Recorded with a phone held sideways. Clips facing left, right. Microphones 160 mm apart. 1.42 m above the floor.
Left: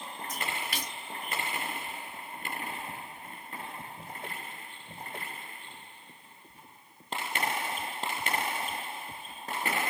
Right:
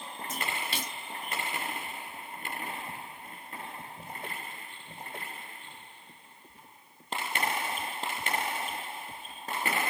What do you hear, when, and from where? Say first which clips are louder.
0.3 s a splash: right 1 dB; 25° right (ahead or behind), 0.6 m